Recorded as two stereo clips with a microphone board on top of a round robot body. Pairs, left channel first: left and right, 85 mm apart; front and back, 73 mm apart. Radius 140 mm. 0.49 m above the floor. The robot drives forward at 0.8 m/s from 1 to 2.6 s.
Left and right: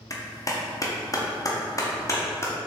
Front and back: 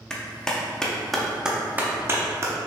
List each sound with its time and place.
0.1 s a clap: 75° left, 1.3 m; by 2.5 s 145° left, 1.6 m